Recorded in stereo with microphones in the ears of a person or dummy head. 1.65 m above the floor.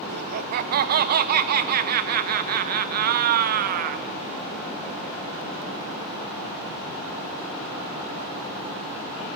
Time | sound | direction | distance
0.1 | laughter | 60° right (ahead or behind) | 1.1 m